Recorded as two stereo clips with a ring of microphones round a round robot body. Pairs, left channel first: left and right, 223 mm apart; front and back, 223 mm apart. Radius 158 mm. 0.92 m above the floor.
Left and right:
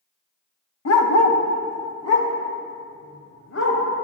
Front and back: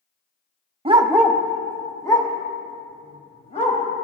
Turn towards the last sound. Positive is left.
turn(degrees=60)